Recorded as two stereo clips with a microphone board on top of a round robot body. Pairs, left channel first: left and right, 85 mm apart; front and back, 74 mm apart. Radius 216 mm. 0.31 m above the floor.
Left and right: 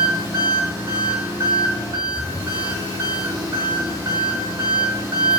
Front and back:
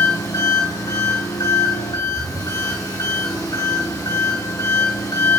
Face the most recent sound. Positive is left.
turn(degrees=-35)